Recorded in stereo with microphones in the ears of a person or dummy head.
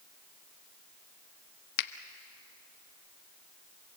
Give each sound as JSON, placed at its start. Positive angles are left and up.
{"t": 1.8, "sound": "a finger snap", "side_deg": 60, "distance_m": 0.9}